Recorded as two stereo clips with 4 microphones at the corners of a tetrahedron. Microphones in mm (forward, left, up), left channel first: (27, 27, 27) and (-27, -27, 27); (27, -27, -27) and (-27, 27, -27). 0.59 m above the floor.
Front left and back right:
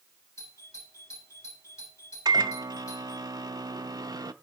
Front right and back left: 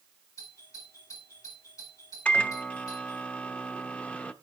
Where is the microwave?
115° right, 0.8 m.